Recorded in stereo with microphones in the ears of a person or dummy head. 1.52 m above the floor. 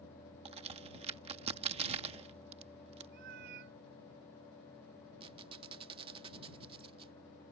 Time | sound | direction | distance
0.5 | a crack | 35° right (ahead or behind) | ?
3.1 | a cat meowing | 60° right (ahead or behind) | ?
5.2 | a squeak | 35° right (ahead or behind) | ?